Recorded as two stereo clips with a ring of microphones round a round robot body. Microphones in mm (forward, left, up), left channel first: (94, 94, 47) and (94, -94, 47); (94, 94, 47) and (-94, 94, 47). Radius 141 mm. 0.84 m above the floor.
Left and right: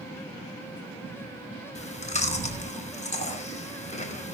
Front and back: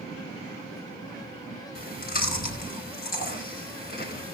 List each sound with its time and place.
1.8 s chewing: 35° left, 5 m